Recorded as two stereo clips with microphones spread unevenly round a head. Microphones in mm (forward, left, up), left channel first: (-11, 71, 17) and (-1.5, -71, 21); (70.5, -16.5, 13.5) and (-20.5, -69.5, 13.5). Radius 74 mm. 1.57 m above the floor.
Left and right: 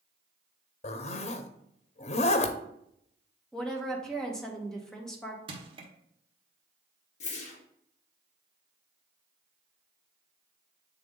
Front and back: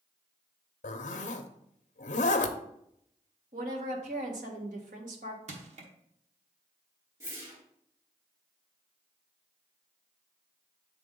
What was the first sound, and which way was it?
A zipper, 45° left.